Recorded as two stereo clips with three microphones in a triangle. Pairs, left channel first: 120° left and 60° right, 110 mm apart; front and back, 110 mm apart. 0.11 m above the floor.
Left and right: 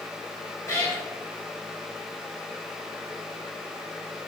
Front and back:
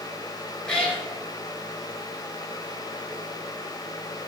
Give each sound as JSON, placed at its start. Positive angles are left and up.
{"t": 0.7, "sound": "a cat meowing", "azimuth_deg": 80, "distance_m": 0.8}